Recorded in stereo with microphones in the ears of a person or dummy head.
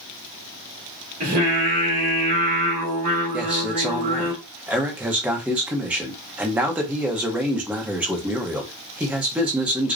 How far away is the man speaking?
About 0.7 m.